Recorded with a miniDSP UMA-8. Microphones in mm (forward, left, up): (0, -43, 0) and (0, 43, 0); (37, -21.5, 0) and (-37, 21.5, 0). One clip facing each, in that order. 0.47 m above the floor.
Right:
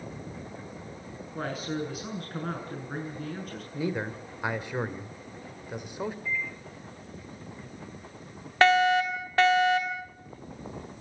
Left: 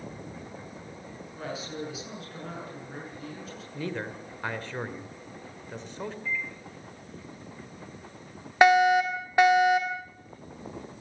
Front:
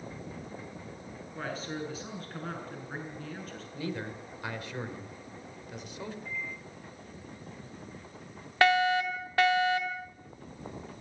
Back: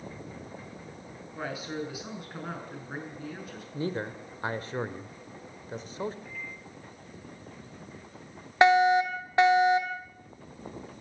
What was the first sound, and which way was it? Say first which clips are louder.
A man speaking: right 4 dB, back 2 dB; 130° right.